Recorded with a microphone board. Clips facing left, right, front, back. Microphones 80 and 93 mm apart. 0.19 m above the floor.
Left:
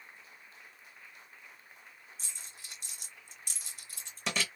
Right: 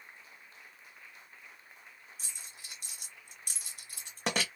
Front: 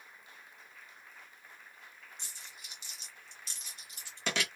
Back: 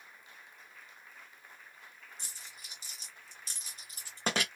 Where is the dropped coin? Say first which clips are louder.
Even, even; 130° right, 1.3 m.